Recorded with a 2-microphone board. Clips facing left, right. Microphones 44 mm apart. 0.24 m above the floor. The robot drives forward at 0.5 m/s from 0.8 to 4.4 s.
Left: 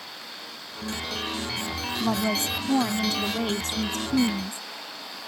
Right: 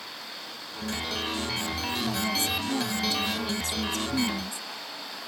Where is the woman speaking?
50° left (ahead or behind); by 4.6 s 35° left (ahead or behind).